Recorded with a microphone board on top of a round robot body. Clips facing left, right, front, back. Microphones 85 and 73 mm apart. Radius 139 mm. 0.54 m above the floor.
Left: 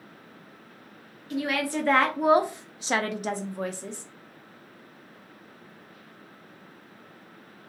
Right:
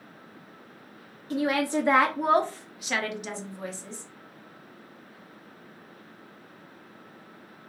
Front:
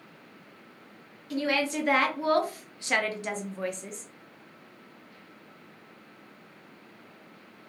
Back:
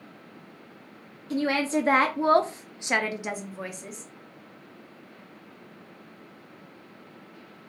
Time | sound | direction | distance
1.3 | a woman speaking | 130° right | 0.8 m